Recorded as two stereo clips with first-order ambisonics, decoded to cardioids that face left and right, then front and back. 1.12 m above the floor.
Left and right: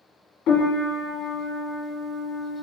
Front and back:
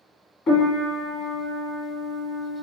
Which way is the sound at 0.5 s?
55° left.